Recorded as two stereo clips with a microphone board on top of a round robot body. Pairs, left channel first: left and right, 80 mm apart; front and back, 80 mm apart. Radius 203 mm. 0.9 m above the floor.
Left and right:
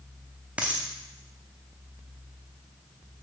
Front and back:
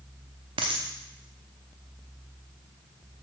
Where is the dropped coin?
165° right, 0.6 m.